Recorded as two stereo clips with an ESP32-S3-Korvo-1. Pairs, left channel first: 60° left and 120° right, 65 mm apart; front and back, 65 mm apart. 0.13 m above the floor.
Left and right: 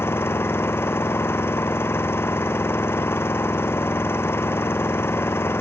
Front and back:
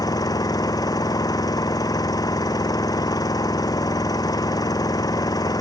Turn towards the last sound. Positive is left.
turn(degrees=5)